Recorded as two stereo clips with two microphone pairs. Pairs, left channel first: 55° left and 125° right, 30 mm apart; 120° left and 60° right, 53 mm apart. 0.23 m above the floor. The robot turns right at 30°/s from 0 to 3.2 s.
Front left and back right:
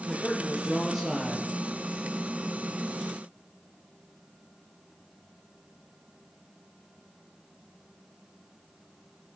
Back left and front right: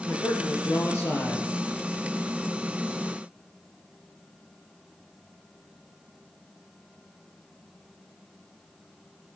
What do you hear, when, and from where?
0.1 s a man speaking: 130° left, 4.5 m; by 1.5 s 170° left, 4.5 m